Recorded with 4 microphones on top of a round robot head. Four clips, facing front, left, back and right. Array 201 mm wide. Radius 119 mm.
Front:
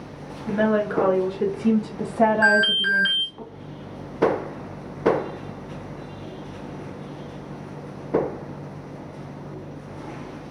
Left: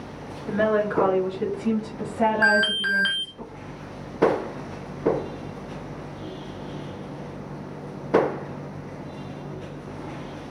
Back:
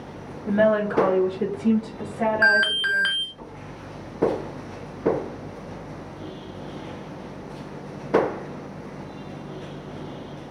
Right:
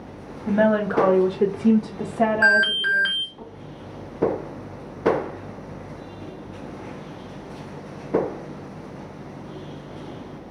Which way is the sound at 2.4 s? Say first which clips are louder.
Right 2 dB, front 1 dB; 175° left.